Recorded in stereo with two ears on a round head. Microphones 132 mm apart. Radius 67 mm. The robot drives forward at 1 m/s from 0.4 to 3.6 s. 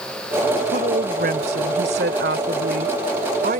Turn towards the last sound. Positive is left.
turn(degrees=-65)  # may be behind; listen again after turning